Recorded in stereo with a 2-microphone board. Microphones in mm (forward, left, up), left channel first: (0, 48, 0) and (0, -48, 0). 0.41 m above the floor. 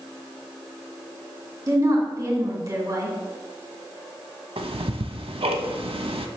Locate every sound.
1.7 s a woman speaking: 35° right (ahead or behind), 1.7 m
4.6 s ticking: 80° right, 0.6 m